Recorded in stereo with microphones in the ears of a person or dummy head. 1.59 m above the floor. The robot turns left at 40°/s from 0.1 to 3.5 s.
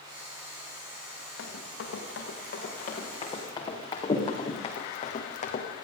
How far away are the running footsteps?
About 6.5 m.